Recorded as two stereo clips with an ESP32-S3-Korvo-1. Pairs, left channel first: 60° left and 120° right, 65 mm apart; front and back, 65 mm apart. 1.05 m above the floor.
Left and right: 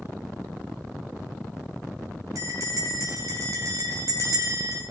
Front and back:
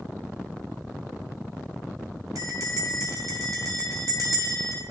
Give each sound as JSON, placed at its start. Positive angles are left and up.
{"t": 2.4, "sound": "a bell", "azimuth_deg": -155, "distance_m": 2.5}